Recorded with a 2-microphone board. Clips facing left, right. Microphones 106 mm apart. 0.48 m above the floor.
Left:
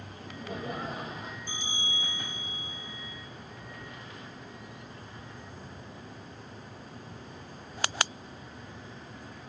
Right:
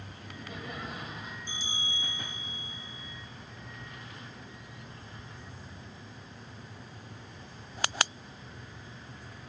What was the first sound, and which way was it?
Laughter, 40° left (ahead or behind).